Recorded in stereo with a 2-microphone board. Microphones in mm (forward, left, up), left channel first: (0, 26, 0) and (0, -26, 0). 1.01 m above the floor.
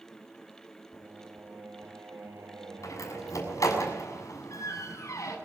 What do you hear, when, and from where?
0.9 s singing: 80° right, 3.5 m
2.8 s a door slam: 90° left, 6.5 m